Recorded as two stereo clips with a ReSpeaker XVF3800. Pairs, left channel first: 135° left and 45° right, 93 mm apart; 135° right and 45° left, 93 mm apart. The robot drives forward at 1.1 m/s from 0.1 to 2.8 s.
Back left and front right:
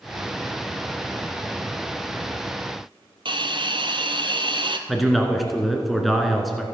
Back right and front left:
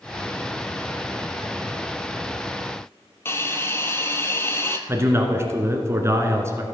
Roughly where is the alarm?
I don't hear an alarm.